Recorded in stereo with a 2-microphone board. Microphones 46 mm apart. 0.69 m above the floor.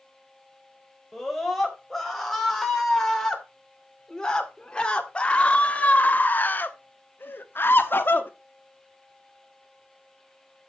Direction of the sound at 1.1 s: 5° left (ahead or behind).